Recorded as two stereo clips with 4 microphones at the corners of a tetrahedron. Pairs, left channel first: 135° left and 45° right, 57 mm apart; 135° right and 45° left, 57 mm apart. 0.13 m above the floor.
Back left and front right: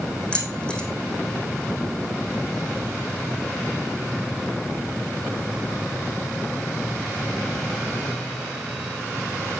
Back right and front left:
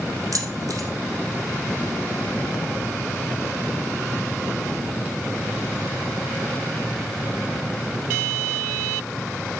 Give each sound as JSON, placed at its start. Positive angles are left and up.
{"t": 0.3, "sound": "keys jangling", "azimuth_deg": 60, "distance_m": 3.5}